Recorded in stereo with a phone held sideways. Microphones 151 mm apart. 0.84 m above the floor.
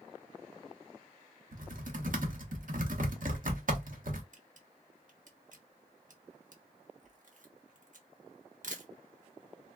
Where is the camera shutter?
60° right (ahead or behind), 0.8 m.